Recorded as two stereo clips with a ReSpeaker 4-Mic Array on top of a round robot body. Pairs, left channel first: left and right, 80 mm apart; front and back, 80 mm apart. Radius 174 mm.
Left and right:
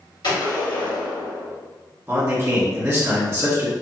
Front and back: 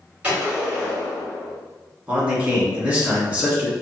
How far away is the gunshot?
About 1.9 m.